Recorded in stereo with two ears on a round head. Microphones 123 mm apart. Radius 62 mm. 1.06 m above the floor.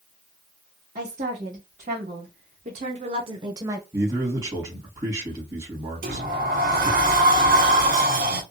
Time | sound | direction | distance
0.9 | a woman speaking | 50° right (ahead or behind) | 1.9 m
3.9 | a man speaking | 25° right (ahead or behind) | 1.9 m
6.0 | a sliding door | 80° right | 1.4 m